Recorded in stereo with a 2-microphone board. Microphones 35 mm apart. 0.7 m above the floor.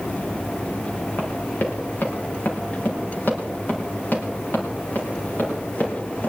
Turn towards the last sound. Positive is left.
turn(degrees=55)  # may be behind; listen again after turning